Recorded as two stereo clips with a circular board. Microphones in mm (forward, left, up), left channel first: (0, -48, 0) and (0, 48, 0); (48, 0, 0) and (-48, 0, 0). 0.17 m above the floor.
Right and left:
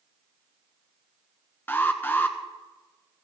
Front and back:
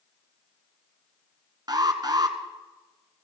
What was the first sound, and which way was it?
An alarm, 150° right.